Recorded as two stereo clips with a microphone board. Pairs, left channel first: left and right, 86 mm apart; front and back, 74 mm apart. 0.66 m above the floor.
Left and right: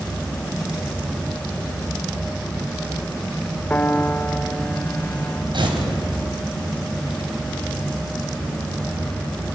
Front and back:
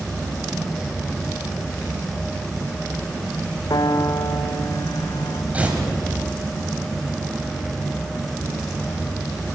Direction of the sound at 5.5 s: 110° right.